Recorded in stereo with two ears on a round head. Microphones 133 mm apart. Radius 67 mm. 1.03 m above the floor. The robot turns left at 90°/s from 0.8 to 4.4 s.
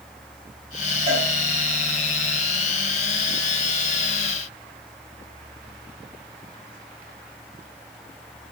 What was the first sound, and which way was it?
A cowbell, 50° right (ahead or behind).